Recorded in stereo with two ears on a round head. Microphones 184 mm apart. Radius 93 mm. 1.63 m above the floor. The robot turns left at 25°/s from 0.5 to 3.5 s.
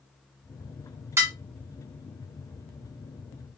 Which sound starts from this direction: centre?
Dishes clattering, at 1.2 s.